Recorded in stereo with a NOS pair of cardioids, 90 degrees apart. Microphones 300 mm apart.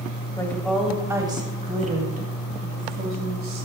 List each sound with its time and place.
0.4 s a woman speaking: 10° left, 3.5 m; by 3.7 s 50° right, 6 m